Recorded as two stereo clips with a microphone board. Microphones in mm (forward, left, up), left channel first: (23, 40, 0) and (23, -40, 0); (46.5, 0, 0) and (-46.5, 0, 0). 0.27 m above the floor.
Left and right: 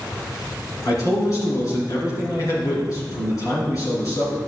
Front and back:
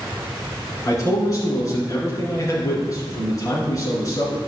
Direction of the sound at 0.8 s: 50° left.